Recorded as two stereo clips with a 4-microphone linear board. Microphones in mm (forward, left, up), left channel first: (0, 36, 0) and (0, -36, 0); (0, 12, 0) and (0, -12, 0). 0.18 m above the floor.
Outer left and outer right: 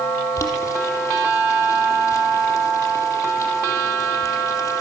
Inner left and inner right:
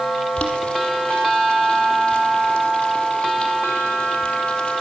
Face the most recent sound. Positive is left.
turn(degrees=40)  # may be behind; listen again after turning